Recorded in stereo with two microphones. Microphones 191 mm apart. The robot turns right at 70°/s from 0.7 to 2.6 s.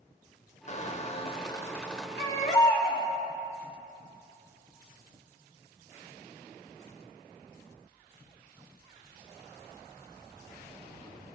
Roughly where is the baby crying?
Left.